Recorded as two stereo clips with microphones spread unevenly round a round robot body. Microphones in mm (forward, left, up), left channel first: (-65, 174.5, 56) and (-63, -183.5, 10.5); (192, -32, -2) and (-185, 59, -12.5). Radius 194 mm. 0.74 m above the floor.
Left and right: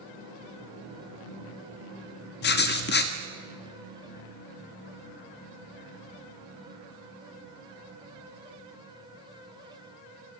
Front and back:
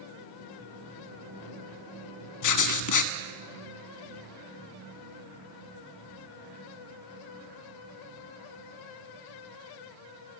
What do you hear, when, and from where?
2.4 s writing: 25° left, 1.2 m